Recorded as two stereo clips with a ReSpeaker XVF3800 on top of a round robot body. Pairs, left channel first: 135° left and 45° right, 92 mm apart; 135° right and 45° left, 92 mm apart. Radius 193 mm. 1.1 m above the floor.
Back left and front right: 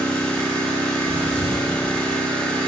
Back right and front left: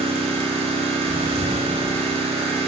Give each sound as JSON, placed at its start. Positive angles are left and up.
{"t": 0.0, "sound": "an engine running", "azimuth_deg": 55, "distance_m": 1.4}
{"t": 1.1, "sound": "breathing", "azimuth_deg": 145, "distance_m": 2.5}